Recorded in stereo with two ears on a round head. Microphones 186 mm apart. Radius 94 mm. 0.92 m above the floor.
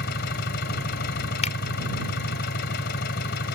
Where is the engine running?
55° left (ahead or behind).